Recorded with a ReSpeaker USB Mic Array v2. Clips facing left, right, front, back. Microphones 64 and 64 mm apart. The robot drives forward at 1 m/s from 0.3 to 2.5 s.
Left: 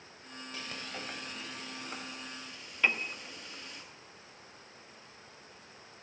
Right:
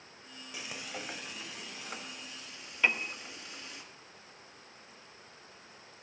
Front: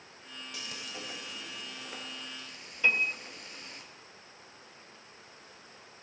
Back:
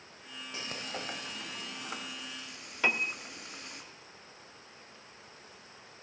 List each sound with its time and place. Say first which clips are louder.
0.5 s frying: right 1 dB, back 4 dB; 160° right, 0.6 m; by 3.8 s 175° right, 2.5 m
2.8 s a piano: even, front 2 dB; 175° right, 0.6 m